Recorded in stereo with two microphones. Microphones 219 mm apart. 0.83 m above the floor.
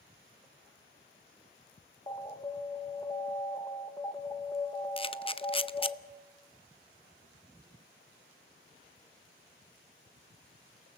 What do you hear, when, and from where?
2.1 s an alarm: 20° left (ahead or behind), 1.3 m
5.0 s a camera shutter: 25° left (ahead or behind), 0.6 m